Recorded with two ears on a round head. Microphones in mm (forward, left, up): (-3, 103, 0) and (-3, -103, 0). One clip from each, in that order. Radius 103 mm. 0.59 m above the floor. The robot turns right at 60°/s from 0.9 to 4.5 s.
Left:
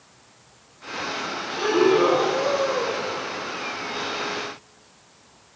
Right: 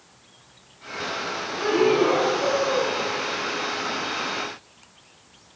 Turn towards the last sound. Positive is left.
turn(degrees=-30)